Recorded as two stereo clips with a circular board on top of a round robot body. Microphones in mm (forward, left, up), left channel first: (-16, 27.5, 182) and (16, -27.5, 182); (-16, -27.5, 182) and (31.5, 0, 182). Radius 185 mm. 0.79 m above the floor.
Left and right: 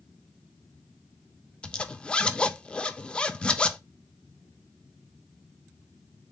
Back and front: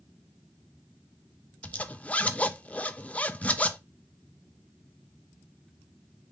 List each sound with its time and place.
1.6 s a zipper: 175° left, 0.8 m